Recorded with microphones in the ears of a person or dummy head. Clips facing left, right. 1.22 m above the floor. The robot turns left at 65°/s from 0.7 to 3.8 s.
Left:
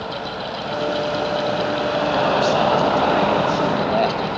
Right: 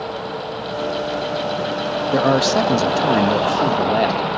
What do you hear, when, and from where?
2.1 s a man speaking: 55° right, 1.6 m; by 4.4 s 165° right, 1.6 m